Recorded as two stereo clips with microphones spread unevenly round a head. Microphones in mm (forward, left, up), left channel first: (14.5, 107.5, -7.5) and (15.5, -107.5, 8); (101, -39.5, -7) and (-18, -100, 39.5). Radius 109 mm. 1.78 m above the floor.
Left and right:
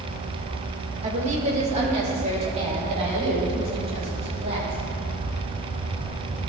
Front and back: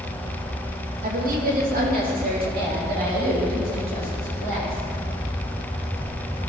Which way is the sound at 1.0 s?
150° right.